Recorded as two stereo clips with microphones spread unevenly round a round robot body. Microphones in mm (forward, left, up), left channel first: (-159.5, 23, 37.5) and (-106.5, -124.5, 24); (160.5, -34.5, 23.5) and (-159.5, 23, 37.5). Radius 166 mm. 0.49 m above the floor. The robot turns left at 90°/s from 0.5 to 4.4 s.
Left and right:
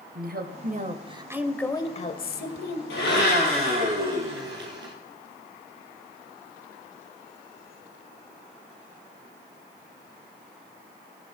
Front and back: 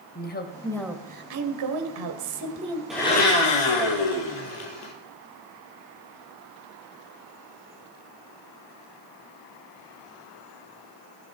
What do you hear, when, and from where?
0.1 s a woman speaking: 70° right, 2.0 m; by 2.8 s 85° left, 2.0 m
2.9 s a blender: 80° left, 4 m; by 4.9 s 55° right, 4 m